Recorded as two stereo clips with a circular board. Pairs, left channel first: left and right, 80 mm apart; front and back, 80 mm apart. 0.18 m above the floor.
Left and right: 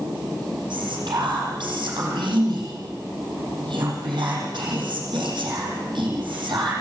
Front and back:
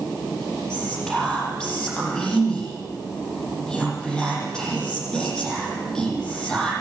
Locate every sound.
0.7 s whispering: 80° right, 8.5 m